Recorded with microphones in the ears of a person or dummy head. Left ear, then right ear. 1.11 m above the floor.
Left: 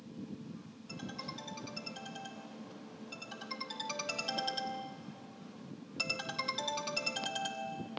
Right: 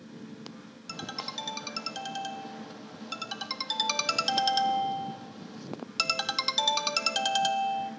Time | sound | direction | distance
0.9 | a ringtone | 60° right (ahead or behind) | 1.1 m